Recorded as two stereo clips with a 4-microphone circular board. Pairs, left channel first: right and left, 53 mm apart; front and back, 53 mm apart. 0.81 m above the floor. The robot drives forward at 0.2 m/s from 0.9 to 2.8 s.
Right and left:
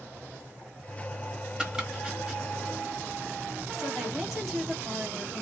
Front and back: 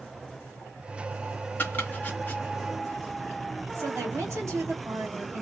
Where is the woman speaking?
175° left, 1.6 m.